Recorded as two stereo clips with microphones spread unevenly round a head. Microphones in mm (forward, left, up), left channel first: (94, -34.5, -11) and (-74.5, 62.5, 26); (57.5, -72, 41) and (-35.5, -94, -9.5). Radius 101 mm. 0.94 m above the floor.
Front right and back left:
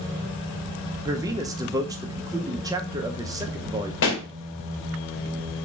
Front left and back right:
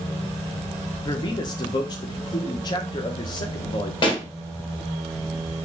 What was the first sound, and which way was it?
A man speaking, 75° left.